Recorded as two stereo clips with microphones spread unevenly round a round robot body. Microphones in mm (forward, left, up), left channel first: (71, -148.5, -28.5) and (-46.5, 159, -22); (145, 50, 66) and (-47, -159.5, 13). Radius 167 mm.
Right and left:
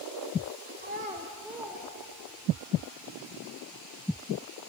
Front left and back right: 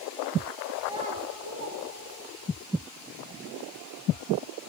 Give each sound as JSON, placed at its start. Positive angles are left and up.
{"t": 0.8, "sound": "a child speaking", "azimuth_deg": 155, "distance_m": 0.5}